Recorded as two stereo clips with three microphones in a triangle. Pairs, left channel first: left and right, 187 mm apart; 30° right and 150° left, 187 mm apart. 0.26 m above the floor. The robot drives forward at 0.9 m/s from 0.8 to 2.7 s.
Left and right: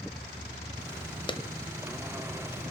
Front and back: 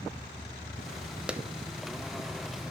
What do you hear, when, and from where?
1.3 s a clap: 70° left, 0.7 m; by 1.4 s 90° left, 0.7 m